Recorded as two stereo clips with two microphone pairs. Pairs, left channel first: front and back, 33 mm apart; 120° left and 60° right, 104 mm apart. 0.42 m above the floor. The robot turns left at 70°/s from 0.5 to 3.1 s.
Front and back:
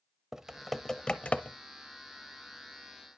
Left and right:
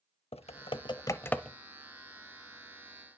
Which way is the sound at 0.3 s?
105° left.